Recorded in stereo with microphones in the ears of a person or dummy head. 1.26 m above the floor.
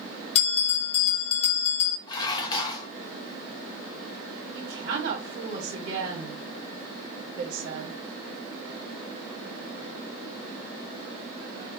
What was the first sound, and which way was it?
A bell, 35° left (ahead or behind).